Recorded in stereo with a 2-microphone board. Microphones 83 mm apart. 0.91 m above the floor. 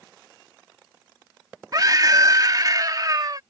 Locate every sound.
1.7 s a scream: 45° right (ahead or behind)